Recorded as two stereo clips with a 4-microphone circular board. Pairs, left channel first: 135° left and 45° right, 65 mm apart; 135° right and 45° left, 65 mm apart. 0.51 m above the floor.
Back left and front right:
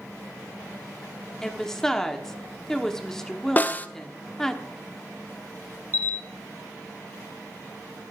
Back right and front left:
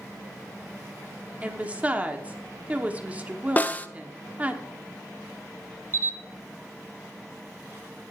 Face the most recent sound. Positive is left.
turn(degrees=-85)